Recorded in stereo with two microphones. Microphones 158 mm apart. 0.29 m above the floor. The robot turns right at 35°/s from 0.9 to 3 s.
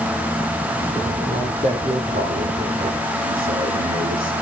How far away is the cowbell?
No cowbell in this recording.